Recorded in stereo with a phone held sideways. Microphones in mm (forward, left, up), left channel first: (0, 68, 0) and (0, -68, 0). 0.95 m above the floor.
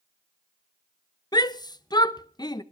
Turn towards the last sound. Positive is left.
turn(degrees=35)  # may be behind; listen again after turning